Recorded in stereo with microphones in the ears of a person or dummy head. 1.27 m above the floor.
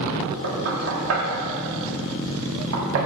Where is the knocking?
75° right (ahead or behind), 1.6 m.